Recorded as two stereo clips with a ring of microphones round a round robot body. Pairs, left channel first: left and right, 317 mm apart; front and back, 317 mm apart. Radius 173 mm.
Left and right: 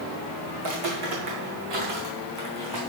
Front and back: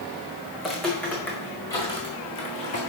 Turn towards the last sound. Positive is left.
turn(degrees=-65)